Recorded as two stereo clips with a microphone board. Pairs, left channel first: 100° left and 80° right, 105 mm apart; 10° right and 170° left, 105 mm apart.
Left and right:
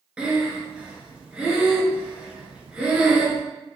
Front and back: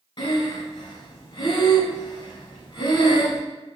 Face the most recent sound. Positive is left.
turn(degrees=-5)